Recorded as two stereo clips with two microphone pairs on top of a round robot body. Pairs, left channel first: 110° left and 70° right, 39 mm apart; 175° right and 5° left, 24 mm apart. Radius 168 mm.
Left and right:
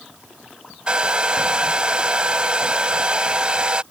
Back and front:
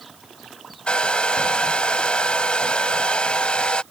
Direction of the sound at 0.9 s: 135° right.